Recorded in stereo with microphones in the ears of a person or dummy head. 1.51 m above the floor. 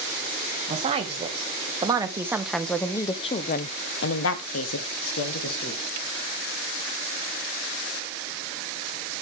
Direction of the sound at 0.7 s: 30° right (ahead or behind).